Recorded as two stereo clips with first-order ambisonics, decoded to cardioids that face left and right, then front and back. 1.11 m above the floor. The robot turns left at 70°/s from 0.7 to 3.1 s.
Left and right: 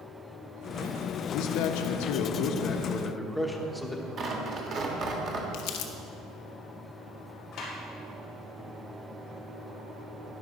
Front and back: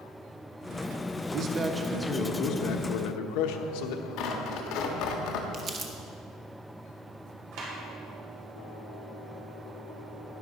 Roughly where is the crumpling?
Behind left.